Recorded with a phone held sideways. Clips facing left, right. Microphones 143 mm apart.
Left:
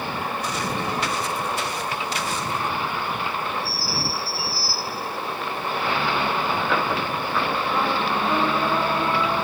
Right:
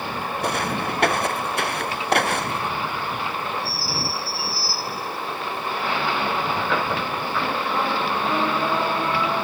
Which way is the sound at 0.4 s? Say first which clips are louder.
Right 6 dB; 60° right (ahead or behind).